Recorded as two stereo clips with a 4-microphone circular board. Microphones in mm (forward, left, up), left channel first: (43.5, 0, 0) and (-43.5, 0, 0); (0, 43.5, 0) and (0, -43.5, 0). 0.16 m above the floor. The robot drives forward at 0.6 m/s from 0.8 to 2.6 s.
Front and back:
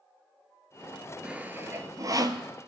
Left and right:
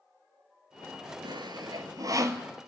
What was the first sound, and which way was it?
Sawing, 105° right.